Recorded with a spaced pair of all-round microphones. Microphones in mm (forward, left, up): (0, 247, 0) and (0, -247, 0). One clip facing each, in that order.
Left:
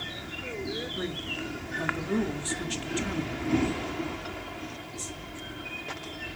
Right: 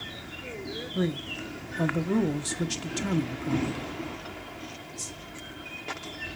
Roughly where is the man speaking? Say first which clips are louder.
Right 4 dB; right.